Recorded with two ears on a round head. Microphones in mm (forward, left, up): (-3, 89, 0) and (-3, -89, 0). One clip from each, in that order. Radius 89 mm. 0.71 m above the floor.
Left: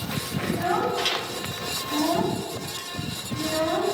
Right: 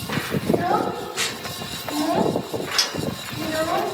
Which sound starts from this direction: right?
A child speaking, at 0.5 s.